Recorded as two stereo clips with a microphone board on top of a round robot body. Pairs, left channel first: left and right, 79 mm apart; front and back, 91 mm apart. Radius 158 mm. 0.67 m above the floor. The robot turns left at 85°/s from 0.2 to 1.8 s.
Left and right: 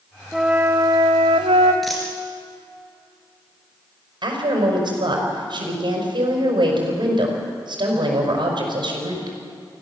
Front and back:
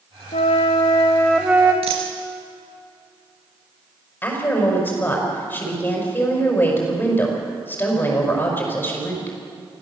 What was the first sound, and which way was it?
A flute, straight ahead.